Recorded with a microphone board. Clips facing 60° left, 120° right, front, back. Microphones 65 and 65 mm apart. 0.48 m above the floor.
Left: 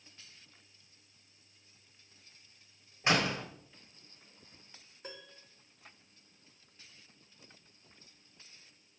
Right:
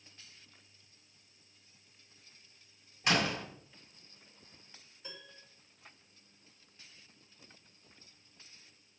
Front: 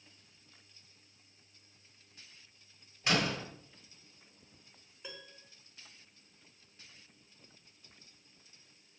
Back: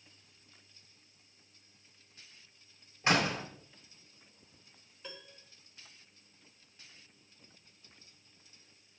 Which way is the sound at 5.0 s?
80° left.